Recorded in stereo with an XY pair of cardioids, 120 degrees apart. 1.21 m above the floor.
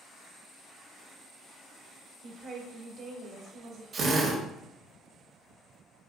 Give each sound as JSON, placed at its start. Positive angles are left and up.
{"t": 2.2, "sound": "a woman speaking", "azimuth_deg": -65, "distance_m": 1.6}
{"t": 3.9, "sound": "a drill", "azimuth_deg": -50, "distance_m": 1.2}